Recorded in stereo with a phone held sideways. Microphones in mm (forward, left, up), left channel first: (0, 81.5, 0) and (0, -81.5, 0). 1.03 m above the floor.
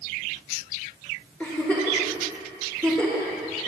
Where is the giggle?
5° left (ahead or behind), 4.5 m.